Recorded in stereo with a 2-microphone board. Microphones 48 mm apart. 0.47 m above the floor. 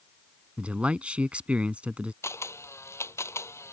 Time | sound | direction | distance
0.6 | a man speaking | 25° right (ahead or behind) | ?
2.2 | a camera shutter | 85° left | ?